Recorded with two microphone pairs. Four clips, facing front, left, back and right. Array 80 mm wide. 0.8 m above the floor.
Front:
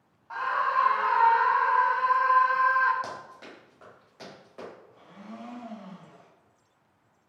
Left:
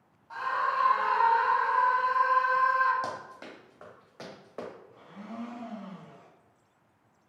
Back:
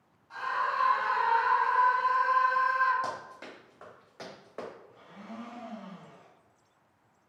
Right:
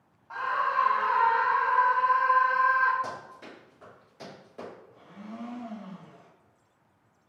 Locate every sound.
0.3 s a scream: 25° right, 0.6 m
3.0 s running footsteps: 70° left, 1.5 m; by 4.7 s 120° left, 3.5 m
4.9 s a blender: 140° left, 1.9 m